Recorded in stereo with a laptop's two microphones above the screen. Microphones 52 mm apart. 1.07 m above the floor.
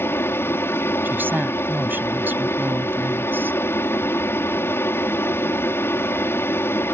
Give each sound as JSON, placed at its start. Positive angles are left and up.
{"t": 0.0, "sound": "an aircraft", "side_deg": 50}
{"t": 1.1, "sound": "a woman speaking", "side_deg": -40}